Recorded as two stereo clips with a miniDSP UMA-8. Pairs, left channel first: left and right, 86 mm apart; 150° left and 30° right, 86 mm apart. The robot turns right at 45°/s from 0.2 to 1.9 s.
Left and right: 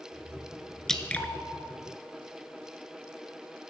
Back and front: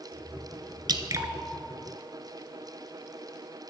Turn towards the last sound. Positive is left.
turn(degrees=50)